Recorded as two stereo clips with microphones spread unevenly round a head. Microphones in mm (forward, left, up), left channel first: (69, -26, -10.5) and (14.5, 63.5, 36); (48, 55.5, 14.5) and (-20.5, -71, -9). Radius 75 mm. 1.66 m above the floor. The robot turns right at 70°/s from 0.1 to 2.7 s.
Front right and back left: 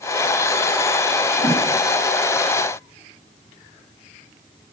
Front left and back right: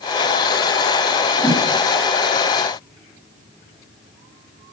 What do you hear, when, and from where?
1.4 s a whoosh: 130° left, 7 m; by 1.6 s 145° left, 7 m